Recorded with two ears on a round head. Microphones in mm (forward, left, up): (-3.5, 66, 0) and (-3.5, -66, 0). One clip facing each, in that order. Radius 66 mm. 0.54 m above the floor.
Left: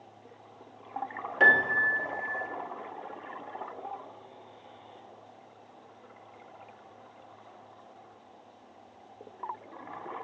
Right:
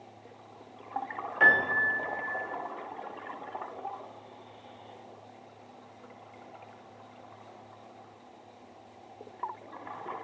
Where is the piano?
35° left (ahead or behind), 1.7 m.